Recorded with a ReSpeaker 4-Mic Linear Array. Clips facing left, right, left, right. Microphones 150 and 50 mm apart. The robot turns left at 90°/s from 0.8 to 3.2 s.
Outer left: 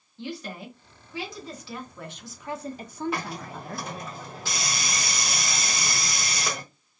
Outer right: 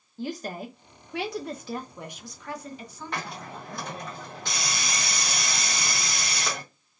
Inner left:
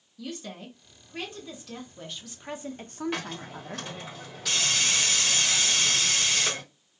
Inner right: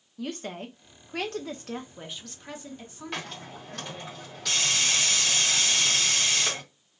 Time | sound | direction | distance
0.2 | a woman speaking | 50° right | 0.7 m
3.1 | a hiss | 5° left (ahead or behind) | 1.1 m